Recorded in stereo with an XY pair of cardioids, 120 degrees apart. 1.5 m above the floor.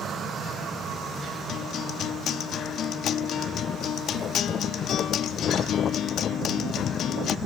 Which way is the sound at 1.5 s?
60° left.